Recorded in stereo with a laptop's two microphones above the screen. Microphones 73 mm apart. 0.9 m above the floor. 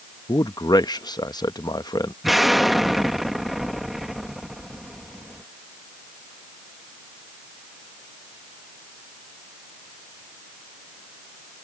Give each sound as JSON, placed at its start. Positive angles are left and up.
{"t": 0.3, "sound": "a man speaking", "side_deg": 65}
{"t": 2.2, "sound": "an explosion", "side_deg": 0}